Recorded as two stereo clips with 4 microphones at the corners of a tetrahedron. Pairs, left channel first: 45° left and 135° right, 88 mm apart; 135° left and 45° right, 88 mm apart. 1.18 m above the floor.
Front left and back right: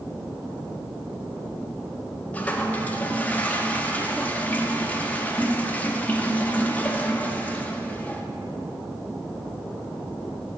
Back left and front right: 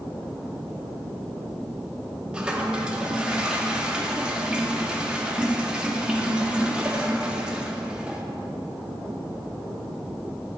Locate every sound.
2.3 s a toilet flushing: 10° left, 0.5 m